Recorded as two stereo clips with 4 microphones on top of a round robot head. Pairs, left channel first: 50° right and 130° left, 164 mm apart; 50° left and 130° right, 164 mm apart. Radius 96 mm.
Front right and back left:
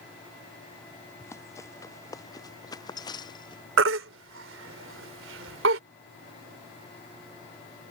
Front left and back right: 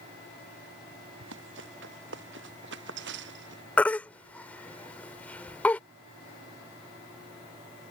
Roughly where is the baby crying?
Behind left.